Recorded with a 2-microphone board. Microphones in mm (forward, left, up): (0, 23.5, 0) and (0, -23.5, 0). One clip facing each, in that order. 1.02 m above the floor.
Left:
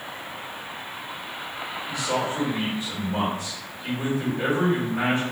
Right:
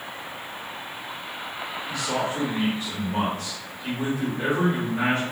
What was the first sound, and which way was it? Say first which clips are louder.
A man speaking: left 1 dB; 10° left (ahead or behind).